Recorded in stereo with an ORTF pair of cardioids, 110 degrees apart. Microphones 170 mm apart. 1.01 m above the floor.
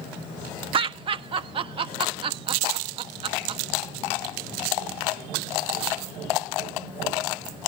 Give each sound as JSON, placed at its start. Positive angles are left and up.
{"t": 0.7, "sound": "laughter", "azimuth_deg": -30, "distance_m": 1.2}